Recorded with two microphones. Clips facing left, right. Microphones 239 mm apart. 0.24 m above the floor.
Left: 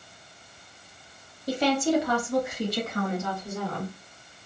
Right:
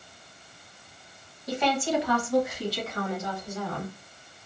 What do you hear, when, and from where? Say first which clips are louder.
1.5 s a woman speaking: left 4 dB; 30° left (ahead or behind), 1.1 m; by 3.9 s 55° left (ahead or behind), 2.5 m